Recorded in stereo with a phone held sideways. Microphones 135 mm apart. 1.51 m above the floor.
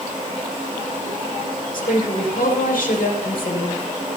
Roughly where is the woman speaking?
Left.